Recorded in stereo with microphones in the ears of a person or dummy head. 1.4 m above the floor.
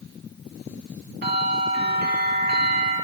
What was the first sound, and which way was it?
A bell, 50° right (ahead or behind).